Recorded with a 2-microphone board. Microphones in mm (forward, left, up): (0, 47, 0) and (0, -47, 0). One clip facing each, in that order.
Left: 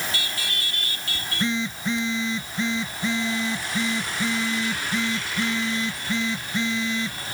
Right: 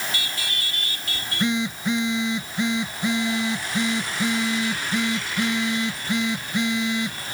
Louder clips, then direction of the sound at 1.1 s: Right 2 dB; 15° right (ahead or behind).